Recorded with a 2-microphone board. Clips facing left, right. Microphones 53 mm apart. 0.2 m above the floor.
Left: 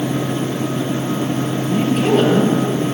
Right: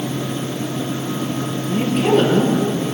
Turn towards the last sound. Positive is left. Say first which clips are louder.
# even
turn(degrees=-5)  # may be behind; listen again after turning